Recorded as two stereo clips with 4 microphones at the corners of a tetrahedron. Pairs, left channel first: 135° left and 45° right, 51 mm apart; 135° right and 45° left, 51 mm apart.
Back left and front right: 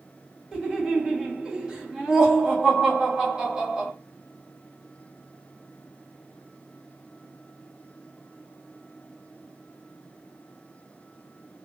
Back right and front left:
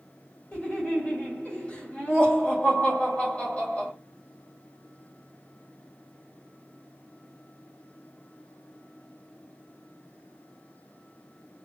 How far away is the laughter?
About 1.8 m.